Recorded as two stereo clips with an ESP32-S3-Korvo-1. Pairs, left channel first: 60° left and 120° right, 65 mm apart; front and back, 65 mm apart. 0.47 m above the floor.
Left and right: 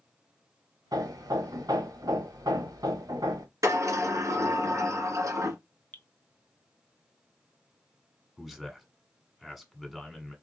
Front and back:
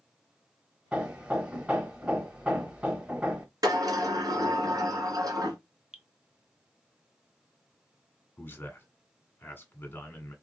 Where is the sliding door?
155° right, 1.8 m.